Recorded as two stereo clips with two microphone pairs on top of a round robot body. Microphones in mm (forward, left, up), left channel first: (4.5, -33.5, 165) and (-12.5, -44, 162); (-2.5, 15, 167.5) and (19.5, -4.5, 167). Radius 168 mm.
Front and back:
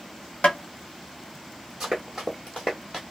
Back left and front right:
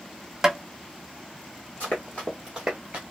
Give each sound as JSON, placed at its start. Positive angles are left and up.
{"t": 0.4, "sound": "tapping", "azimuth_deg": 35, "distance_m": 0.8}
{"t": 1.8, "sound": "running footsteps", "azimuth_deg": 130, "distance_m": 0.8}